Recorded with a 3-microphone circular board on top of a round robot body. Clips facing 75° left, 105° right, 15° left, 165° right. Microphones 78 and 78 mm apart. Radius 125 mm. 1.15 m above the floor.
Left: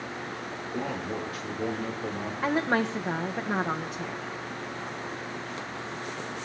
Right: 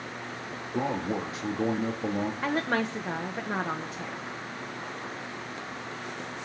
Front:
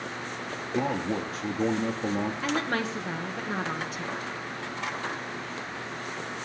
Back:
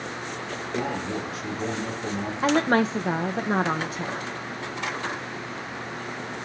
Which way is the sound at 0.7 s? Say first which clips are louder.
Right 4 dB, front 1 dB; 40° right.